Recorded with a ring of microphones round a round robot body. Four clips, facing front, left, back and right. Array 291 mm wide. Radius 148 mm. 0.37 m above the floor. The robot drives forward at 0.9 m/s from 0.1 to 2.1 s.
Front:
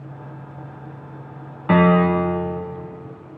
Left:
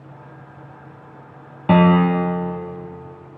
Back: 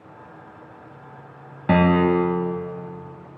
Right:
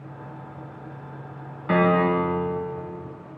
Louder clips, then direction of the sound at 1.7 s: Left 5 dB, front 2 dB; 125° left.